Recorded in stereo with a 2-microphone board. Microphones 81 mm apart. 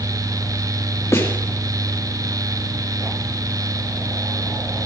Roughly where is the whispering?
I don't hear whispering.